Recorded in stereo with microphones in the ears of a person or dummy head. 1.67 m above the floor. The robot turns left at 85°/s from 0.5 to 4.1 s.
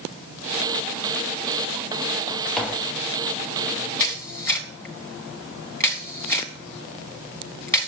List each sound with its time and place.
2.6 s tapping: 5° left, 1.3 m; by 3.0 s 30° right, 1.3 m
4.0 s a camera shutter: 25° left (ahead or behind), 2 m; by 7.9 s 20° left (ahead or behind), 2 m